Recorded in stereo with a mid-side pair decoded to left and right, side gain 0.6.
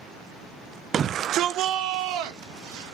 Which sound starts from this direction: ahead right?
A shout, at 0.9 s.